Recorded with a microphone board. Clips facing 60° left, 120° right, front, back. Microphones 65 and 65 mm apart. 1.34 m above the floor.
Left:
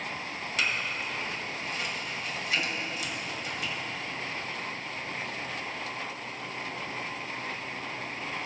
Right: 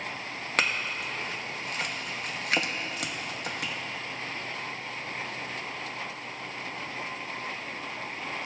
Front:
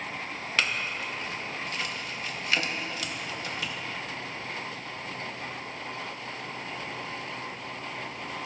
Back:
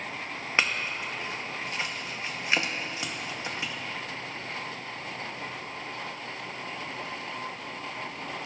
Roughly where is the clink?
Behind right.